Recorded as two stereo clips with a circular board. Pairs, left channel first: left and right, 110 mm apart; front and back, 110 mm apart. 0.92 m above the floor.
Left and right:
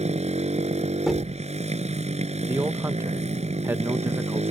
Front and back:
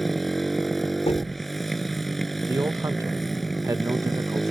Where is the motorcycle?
90° right.